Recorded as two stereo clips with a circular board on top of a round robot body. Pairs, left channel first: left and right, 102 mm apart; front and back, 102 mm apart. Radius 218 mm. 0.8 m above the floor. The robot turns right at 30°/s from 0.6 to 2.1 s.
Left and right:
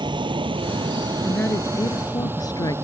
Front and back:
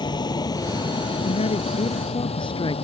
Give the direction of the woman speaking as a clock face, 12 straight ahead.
12 o'clock.